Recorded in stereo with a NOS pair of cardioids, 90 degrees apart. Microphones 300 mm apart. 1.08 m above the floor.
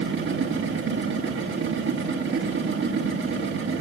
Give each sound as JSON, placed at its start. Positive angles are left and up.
{"t": 0.0, "sound": "a machine running", "azimuth_deg": -40, "distance_m": 2.5}